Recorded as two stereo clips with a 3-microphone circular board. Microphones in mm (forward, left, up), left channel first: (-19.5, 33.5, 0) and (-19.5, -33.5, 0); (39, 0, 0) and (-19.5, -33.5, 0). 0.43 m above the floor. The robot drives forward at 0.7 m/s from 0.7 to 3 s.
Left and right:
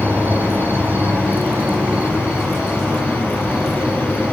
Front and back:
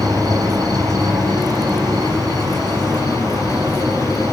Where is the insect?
150° right, 3 m; by 4.3 s 160° right, 4.5 m.